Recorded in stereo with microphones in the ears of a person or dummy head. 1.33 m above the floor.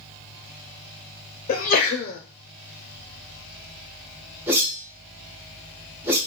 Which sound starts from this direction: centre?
A whoosh, at 4.5 s.